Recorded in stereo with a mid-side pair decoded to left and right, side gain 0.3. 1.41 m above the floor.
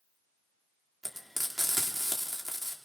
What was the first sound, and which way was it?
Frying, 15° right.